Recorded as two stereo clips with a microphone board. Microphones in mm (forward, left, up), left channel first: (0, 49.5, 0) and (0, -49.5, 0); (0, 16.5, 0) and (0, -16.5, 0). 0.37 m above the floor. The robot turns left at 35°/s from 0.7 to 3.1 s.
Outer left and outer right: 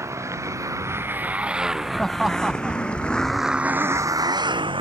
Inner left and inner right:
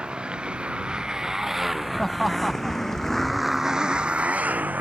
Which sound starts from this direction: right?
A motorcycle, at 0.0 s.